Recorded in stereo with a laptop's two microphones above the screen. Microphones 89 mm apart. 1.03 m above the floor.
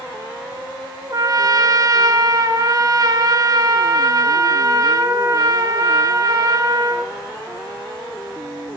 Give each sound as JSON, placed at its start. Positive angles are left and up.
{"t": 1.1, "sound": "a trumpet", "side_deg": -45, "distance_m": 1.0}